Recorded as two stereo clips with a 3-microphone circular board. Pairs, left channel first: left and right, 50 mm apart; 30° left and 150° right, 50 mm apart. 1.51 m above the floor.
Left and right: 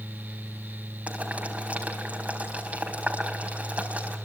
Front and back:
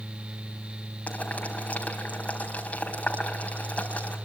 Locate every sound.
1.1 s boiling: 30° right, 4 m